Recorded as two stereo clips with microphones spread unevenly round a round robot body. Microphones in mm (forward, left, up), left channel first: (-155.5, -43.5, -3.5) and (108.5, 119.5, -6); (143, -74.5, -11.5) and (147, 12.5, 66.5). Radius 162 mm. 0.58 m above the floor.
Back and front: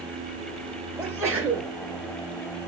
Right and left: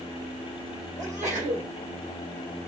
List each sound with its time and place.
1.0 s a sneeze: 105° left, 2 m